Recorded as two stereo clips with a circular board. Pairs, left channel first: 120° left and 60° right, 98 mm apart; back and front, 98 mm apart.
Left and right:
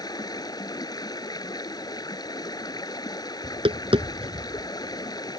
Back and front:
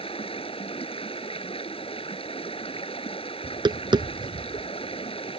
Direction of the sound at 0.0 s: 165° left.